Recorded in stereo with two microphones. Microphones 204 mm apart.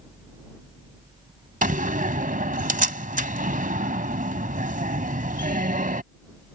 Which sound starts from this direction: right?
A door slam, at 1.6 s.